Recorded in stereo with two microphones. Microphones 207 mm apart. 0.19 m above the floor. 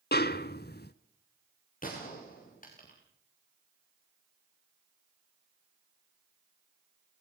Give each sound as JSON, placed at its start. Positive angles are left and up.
{"t": 0.1, "sound": "a snare drum", "side_deg": 50, "distance_m": 0.7}
{"t": 1.8, "sound": "a gunshot", "side_deg": 40, "distance_m": 7.0}